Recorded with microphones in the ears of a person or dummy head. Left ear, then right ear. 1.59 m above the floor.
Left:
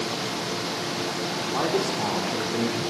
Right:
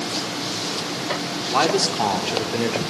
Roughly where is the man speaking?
Right.